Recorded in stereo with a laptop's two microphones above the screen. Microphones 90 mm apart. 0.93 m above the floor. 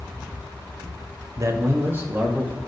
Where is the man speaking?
40° right (ahead or behind), 0.8 m; by 2.6 s 20° right (ahead or behind), 1.8 m.